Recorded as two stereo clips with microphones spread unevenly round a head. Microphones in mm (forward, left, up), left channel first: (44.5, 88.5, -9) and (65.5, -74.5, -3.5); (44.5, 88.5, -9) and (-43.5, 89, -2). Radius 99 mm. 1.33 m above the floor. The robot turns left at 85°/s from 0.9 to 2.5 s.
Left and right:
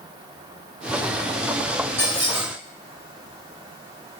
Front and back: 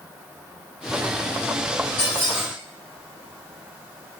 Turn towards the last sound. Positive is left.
turn(degrees=-85)